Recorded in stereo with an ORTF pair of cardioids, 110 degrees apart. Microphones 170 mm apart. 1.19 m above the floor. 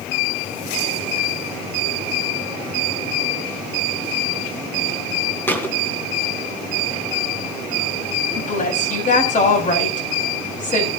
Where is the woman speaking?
45° left, 6.5 m.